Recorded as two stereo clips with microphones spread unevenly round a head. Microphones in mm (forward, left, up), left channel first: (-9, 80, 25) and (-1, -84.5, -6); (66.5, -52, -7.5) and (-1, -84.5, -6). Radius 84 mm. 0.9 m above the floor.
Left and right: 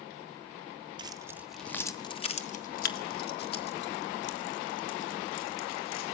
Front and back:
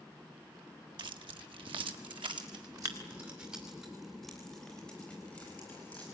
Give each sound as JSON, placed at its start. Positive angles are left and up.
{"t": 1.0, "sound": "keys jangling", "azimuth_deg": -150, "distance_m": 1.3}